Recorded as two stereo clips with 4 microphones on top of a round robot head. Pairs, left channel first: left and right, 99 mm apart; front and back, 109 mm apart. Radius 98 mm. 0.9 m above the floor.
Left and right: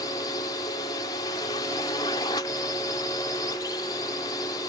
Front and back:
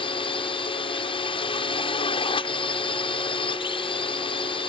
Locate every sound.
0.0 s a drone: 35° left